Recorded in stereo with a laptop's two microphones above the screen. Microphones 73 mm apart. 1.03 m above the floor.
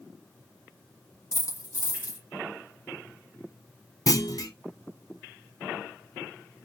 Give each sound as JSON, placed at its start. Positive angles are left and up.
{"t": 1.3, "sound": "a dropped coin", "side_deg": 55, "distance_m": 1.4}
{"t": 4.1, "sound": "a clunk", "side_deg": 55, "distance_m": 0.7}